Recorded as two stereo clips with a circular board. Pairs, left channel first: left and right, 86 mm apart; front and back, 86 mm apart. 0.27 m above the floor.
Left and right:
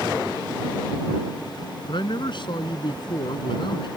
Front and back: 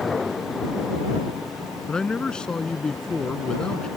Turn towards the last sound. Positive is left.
turn(degrees=80)